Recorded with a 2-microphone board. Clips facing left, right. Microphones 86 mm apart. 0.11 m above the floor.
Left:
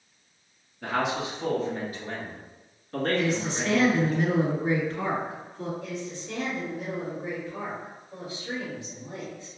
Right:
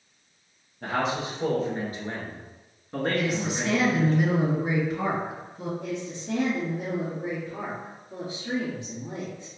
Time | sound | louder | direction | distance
0.8 | a man speaking | even | 45° right (ahead or behind) | 1.8 m
3.1 | a woman speaking | even | 15° right (ahead or behind) | 1.8 m
5.8 | a woman speaking | right 2 dB | 50° right (ahead or behind) | 1.7 m